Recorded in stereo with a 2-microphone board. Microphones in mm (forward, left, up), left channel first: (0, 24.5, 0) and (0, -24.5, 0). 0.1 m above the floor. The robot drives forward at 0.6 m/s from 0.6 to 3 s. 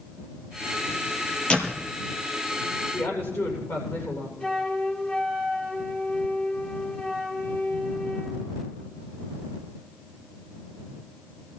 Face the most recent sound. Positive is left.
turn(degrees=30)  # may be behind; listen again after turning